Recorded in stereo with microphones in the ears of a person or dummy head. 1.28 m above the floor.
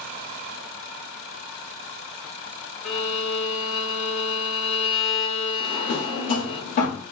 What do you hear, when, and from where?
2.8 s a violin: 65° left (ahead or behind), 2.5 m
5.6 s a drawer: 45° left (ahead or behind), 0.9 m